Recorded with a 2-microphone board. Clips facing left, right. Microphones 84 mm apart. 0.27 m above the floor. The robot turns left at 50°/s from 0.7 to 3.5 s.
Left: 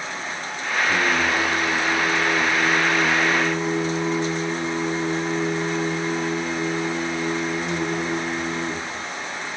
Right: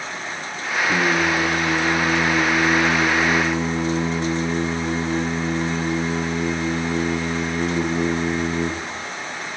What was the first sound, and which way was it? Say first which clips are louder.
Singing: right 2 dB; 15° right.